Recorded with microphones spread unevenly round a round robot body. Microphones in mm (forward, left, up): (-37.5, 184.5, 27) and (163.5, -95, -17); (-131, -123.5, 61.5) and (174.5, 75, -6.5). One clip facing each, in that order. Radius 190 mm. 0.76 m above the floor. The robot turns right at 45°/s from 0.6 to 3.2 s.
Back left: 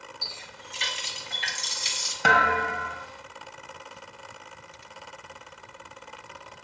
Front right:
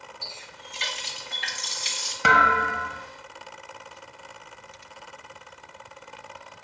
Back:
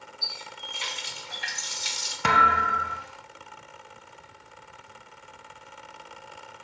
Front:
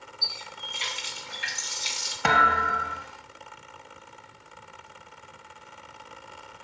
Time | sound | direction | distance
0.2 | a running tap | 85° left | 1.6 m
2.2 | a thud | 145° right | 0.5 m